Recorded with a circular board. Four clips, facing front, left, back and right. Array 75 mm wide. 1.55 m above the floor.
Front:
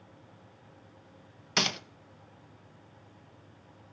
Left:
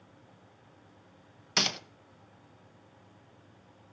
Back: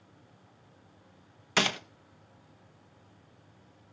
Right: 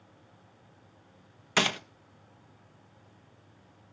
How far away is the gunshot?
About 0.7 m.